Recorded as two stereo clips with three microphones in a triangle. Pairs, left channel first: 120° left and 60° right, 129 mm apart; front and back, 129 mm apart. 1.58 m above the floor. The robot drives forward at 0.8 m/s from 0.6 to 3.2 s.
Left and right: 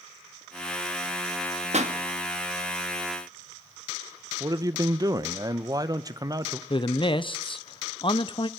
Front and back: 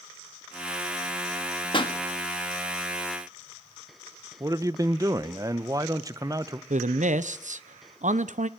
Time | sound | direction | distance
1.7 | a pop | 45° right | 1.6 m
4.4 | a man speaking | 120° right | 1.0 m
6.7 | a man speaking | 165° left | 0.9 m